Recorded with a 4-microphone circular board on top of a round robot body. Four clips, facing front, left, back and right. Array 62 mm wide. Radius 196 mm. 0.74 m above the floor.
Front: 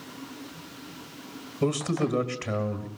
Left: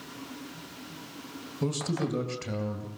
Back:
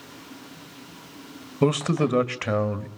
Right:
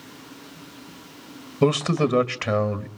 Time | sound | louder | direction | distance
1.6 | a man speaking | right 10 dB, back 4 dB | 125° right | 1.9 m